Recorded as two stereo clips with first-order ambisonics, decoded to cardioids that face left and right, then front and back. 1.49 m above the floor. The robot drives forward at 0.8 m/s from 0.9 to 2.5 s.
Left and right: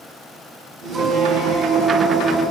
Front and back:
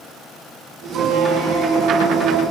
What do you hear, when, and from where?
0.9 s a squeak: 145° right, 1.1 m; by 2.4 s 165° right, 2 m